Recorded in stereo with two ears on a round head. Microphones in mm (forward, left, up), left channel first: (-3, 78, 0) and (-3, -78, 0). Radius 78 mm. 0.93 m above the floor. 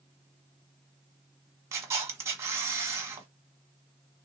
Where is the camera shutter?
15° right (ahead or behind), 1.2 m.